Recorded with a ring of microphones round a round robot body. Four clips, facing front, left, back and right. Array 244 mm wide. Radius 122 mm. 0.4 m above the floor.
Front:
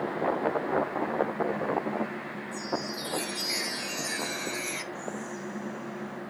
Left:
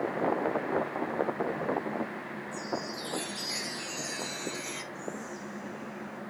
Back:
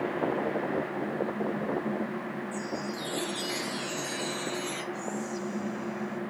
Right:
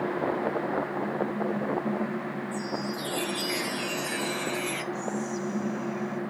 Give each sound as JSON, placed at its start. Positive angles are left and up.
{"t": 2.5, "sound": "a chime", "azimuth_deg": -45, "distance_m": 1.6}
{"t": 4.9, "sound": "whispering", "azimuth_deg": -125, "distance_m": 3.0}